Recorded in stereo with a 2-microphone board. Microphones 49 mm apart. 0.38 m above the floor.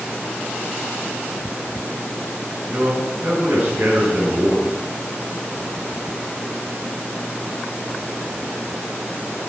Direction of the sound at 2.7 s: 35° right (ahead or behind).